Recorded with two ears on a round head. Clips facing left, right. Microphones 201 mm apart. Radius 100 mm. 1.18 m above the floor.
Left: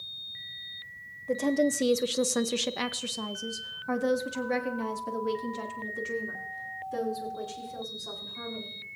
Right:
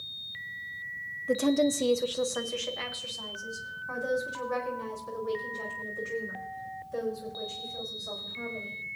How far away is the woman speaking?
About 0.7 m.